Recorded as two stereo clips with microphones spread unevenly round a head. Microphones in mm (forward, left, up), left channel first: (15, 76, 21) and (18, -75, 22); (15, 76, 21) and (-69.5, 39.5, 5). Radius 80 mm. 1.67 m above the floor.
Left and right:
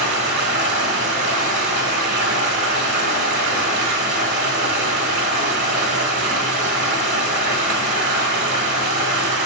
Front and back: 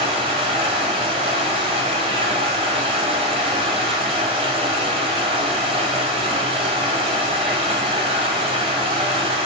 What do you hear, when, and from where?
0.0 s running water: 120° right, 2 m